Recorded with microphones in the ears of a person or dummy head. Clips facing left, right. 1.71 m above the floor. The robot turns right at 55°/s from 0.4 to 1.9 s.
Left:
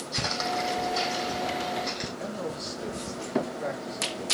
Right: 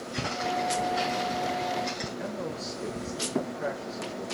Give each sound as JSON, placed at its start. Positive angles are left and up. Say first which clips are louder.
{"t": 0.1, "sound": "footsteps", "louder": "even", "side_deg": 55, "distance_m": 3.5}
{"t": 2.2, "sound": "a man speaking", "louder": "left 1 dB", "side_deg": 0, "distance_m": 4.0}